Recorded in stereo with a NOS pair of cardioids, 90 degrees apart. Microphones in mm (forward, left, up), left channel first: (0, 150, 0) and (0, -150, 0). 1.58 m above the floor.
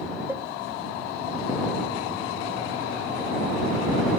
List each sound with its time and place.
0.3 s a cowbell: 10° right